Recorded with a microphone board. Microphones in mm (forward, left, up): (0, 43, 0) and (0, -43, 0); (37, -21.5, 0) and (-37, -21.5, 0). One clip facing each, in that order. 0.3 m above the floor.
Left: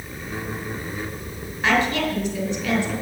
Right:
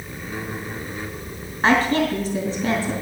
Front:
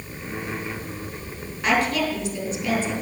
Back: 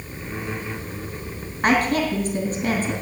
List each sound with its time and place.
1.6 s a woman speaking: 135° right, 3 m